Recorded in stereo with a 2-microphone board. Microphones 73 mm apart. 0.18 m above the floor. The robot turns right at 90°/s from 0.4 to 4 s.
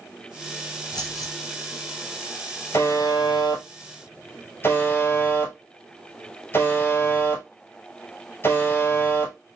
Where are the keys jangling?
90° left, 1.6 m; by 1.3 s 130° left, 1.6 m.